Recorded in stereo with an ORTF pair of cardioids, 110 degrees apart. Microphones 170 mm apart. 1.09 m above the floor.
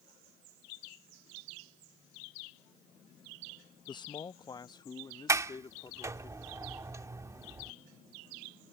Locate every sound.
3.9 s a man speaking: 25° left
5.3 s a sliding door: 20° right